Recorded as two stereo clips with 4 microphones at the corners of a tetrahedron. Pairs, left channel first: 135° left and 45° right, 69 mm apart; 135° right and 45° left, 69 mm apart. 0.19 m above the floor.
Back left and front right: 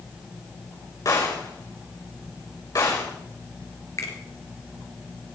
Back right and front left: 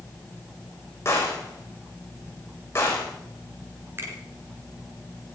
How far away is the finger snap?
About 3 m.